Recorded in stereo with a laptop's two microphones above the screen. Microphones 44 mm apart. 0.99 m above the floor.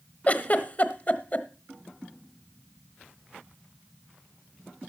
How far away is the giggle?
About 1.0 m.